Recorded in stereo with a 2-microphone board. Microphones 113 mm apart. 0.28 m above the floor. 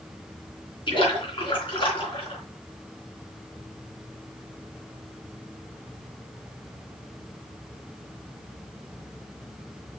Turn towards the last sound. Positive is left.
turn(degrees=50)  # may be behind; listen again after turning